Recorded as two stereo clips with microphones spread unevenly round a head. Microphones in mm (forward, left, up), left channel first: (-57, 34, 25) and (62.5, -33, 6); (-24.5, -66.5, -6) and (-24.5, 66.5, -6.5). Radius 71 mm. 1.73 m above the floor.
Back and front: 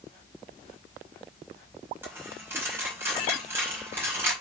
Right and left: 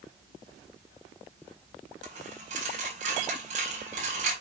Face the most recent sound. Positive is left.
turn(degrees=45)